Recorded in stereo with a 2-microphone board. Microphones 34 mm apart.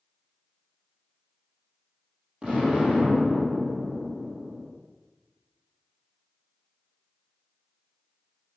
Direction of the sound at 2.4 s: 35° right (ahead or behind).